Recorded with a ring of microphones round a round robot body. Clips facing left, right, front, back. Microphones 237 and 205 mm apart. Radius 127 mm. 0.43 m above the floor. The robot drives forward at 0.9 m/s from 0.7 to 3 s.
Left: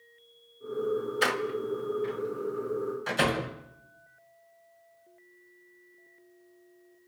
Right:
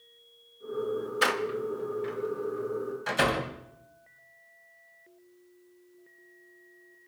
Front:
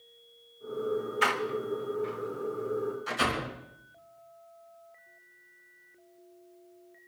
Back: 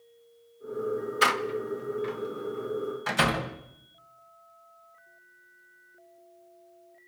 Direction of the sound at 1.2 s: Straight behind.